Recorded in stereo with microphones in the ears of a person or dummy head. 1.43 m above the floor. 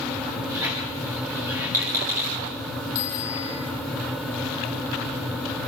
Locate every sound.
0.5 s a squeak: 15° right (ahead or behind), 8 m
3.0 s a bicycle bell: 50° left (ahead or behind), 3.5 m